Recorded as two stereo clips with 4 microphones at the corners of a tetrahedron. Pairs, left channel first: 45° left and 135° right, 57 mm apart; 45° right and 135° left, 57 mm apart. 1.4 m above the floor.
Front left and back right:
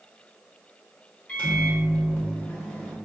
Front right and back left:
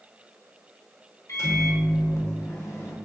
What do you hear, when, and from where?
1.3 s a microwave: 20° right, 0.7 m